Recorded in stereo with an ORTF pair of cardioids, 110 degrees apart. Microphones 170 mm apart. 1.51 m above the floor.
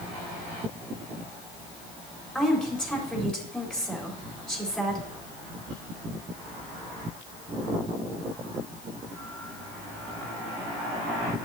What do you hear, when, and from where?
2.4 s a woman speaking: 5° left, 4 m